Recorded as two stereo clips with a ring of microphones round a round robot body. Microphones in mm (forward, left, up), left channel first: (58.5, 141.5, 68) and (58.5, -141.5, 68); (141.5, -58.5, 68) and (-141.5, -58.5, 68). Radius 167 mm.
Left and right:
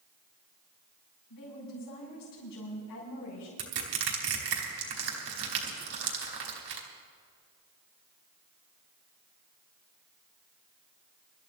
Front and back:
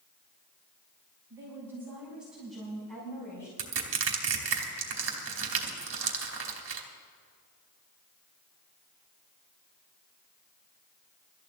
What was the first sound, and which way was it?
A woman speaking, 100° left.